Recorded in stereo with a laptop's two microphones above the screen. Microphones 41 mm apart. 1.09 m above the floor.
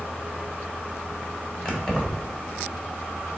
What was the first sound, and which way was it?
Keys jangling, 25° left (ahead or behind).